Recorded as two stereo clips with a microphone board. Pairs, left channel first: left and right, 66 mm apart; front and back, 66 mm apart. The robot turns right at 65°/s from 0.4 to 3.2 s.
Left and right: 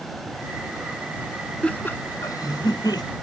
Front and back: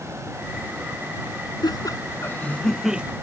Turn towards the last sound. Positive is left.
turn(degrees=120)